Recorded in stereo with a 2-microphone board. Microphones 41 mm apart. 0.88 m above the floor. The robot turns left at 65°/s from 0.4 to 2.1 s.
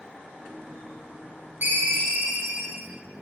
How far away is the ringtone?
About 1.5 m.